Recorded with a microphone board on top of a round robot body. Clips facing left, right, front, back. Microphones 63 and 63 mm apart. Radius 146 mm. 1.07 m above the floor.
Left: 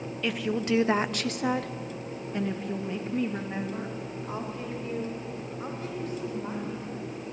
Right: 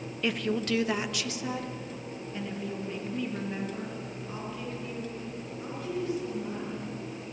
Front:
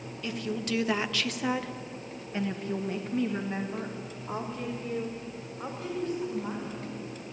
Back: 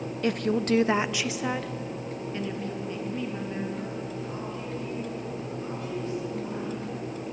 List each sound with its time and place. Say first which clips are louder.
0.2 s a woman speaking: left 1 dB, back 8 dB; 175° right, 1.0 m; by 6.8 s 55° left, 6 m